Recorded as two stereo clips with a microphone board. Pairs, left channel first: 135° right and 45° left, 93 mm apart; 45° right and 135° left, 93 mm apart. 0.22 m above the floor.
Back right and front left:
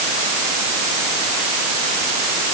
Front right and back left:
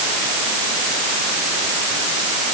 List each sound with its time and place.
Only background noise.